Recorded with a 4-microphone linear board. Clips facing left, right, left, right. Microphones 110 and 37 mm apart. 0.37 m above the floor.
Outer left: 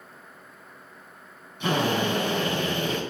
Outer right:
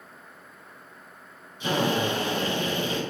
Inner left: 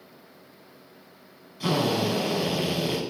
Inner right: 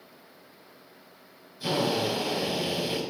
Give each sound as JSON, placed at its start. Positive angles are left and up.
{"t": 1.6, "sound": "a drill", "side_deg": 65, "distance_m": 3.5}